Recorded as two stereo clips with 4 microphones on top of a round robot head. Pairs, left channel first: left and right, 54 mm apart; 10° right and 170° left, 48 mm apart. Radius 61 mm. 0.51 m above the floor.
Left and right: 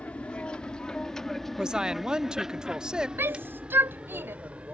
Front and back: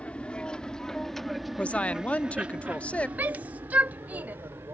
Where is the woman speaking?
30° right.